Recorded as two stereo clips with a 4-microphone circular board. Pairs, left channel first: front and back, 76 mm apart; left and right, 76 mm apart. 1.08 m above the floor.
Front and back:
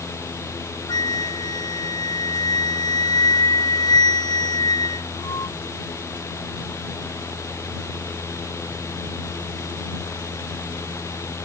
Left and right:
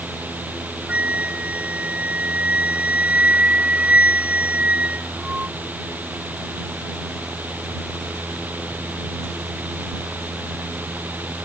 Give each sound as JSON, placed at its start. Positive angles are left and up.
{"t": 0.9, "sound": "a flute", "azimuth_deg": -20}